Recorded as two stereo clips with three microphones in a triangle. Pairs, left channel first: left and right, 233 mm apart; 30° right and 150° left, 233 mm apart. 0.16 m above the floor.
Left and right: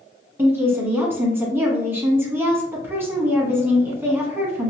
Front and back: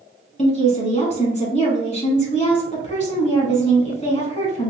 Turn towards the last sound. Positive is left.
turn(degrees=-20)